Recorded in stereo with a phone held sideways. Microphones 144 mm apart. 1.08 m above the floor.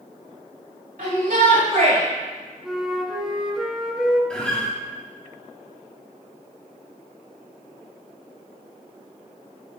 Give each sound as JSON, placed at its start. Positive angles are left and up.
{"t": 1.0, "sound": "a shout", "side_deg": -75, "distance_m": 3.0}
{"t": 2.6, "sound": "a flute", "side_deg": -5, "distance_m": 1.1}
{"t": 4.3, "sound": "a guitar", "side_deg": 5, "distance_m": 2.5}